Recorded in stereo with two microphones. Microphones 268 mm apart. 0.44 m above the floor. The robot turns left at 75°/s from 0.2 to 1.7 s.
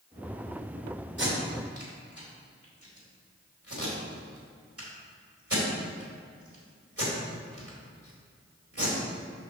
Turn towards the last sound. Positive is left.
turn(degrees=-60)  # may be behind; listen again after turning